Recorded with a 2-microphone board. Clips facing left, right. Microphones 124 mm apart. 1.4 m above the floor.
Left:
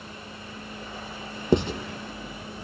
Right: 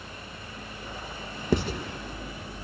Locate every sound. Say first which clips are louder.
1.5 s writing: left 4 dB; 20° left (ahead or behind), 1.9 m